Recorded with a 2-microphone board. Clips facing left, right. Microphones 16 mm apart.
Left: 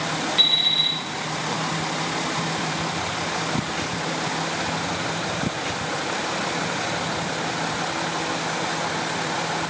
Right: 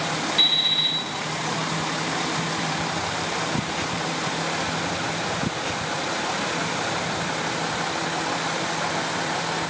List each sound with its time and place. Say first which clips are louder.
0.4 s an alarm clock: left 1 dB; 5° left (ahead or behind), 0.9 m